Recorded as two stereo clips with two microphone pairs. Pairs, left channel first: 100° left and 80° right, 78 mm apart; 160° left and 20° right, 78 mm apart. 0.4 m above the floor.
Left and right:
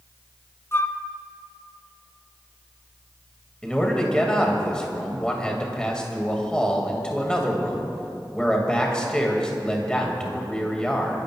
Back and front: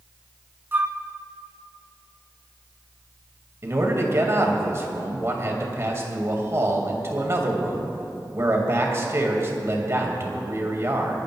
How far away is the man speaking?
About 2 m.